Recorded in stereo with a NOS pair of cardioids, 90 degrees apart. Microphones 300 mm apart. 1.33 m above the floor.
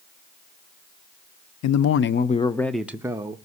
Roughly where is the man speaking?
Left.